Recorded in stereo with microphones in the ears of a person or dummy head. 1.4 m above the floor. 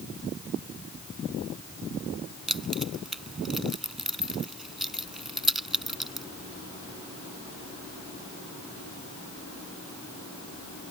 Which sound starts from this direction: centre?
Keys jangling, at 2.5 s.